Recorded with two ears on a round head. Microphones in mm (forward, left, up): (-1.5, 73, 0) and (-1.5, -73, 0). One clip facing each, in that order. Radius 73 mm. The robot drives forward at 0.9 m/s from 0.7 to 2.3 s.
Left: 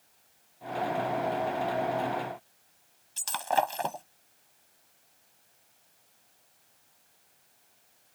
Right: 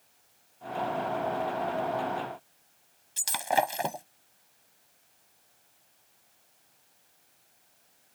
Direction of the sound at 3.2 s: 15° right (ahead or behind).